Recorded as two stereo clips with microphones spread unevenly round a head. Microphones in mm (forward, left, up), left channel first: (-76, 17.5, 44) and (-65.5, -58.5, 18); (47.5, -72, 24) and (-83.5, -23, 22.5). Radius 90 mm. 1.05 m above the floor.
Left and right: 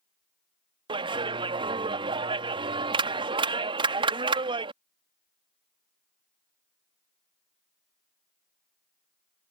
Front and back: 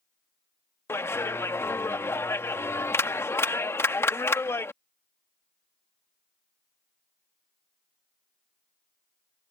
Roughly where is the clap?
Right.